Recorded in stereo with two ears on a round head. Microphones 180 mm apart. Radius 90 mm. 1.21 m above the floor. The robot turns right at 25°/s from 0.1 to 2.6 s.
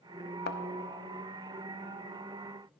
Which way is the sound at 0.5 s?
50° left (ahead or behind).